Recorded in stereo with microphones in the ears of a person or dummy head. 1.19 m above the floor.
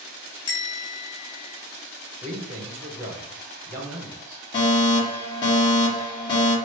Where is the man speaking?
35° right (ahead or behind), 0.8 m.